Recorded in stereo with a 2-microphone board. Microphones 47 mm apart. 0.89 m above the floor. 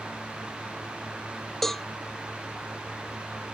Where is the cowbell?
5° left (ahead or behind).